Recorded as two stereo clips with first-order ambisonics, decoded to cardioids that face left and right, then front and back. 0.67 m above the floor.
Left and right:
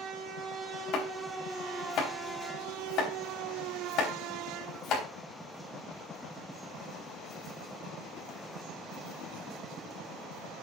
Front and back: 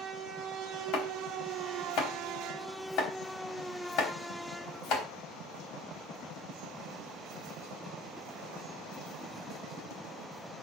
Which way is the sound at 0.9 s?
45° left.